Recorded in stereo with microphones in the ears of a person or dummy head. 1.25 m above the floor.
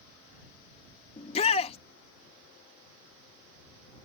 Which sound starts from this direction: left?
A shout, at 1.2 s.